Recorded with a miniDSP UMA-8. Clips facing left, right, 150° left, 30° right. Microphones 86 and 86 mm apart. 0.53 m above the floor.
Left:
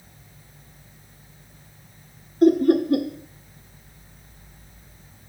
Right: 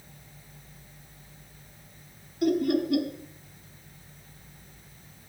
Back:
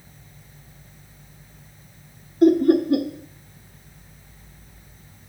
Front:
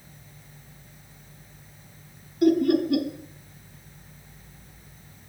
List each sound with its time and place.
2.4 s laughter: 120° left, 1.0 m